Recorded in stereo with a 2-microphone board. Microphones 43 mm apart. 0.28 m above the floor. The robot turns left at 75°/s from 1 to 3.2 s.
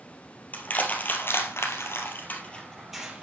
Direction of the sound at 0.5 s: 40° left (ahead or behind).